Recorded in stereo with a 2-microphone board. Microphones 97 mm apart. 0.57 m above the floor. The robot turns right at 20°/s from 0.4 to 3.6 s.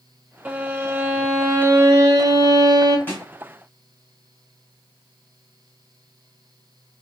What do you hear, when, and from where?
0.5 s a violin: 160° right, 0.5 m; by 3.0 s 110° right, 0.5 m
3.1 s a snare drum: 20° left (ahead or behind), 1.6 m; by 3.2 s 15° left (ahead or behind), 1.6 m